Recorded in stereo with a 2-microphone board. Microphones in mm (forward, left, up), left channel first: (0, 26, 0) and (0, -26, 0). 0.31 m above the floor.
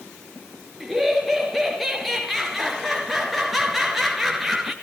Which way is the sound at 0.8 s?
Centre (ahead or behind).